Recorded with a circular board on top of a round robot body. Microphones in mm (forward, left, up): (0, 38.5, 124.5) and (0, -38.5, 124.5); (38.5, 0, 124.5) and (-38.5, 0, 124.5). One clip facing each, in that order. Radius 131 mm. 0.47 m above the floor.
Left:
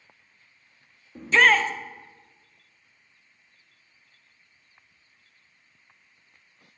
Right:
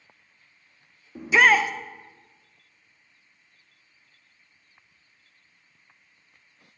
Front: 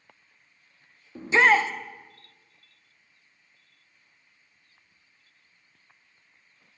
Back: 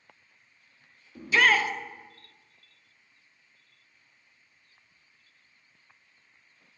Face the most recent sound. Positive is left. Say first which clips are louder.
# right 1 dB, front 3 dB
turn(degrees=-20)